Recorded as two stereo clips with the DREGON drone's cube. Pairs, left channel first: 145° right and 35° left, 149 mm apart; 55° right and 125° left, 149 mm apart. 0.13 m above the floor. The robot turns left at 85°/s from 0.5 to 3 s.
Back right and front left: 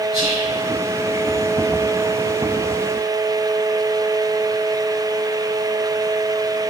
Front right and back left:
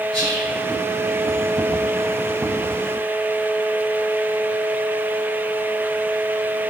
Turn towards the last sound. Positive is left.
turn(degrees=-170)